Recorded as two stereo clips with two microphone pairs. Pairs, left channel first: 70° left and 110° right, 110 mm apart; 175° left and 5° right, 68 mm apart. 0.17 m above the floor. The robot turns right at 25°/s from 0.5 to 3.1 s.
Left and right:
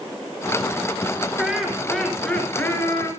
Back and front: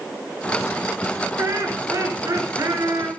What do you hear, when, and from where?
1.4 s laughter: 30° right, 2.5 m; by 3.1 s 10° left, 2.5 m